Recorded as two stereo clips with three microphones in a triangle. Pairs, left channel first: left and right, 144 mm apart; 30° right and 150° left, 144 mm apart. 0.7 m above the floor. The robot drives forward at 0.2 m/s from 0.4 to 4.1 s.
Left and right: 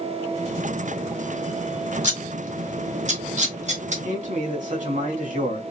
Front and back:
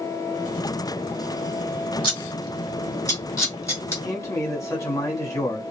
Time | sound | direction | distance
2.0 | scissors | 80° right | 1.7 m
4.0 | a man speaking | 95° right | 1.5 m